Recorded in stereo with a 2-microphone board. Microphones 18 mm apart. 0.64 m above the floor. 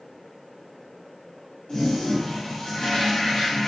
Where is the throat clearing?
I don't hear throat clearing.